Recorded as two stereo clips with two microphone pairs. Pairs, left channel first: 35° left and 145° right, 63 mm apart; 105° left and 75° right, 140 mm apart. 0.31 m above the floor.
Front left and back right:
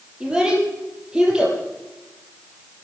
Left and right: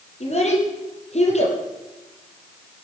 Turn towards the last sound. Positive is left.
turn(degrees=140)